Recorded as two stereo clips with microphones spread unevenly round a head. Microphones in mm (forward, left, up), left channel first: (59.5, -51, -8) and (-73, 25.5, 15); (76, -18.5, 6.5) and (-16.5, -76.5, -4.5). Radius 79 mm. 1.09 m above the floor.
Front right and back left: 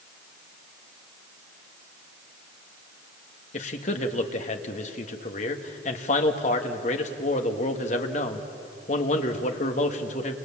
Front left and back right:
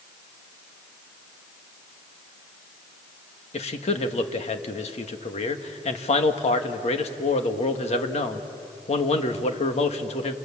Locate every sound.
3.5 s a man speaking: 10° left, 1.8 m